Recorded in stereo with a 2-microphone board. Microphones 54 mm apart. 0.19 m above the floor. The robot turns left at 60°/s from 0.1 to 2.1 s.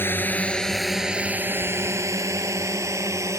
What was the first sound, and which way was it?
A drone, 45° left (ahead or behind).